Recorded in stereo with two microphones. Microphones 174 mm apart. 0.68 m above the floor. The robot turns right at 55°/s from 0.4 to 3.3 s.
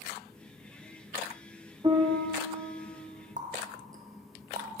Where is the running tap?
50° right (ahead or behind), 0.6 m.